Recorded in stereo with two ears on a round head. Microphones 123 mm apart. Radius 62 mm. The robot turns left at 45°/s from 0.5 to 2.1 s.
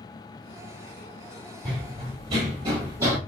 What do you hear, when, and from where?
1.6 s running footsteps: 35° right (ahead or behind), 2.5 m; by 3.2 s 20° right (ahead or behind), 1.7 m